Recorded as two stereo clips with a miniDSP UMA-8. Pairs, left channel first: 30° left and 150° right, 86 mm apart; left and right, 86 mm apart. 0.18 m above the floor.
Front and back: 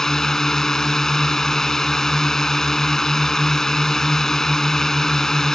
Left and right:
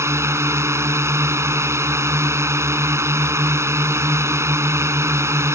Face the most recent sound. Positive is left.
turn(degrees=-50)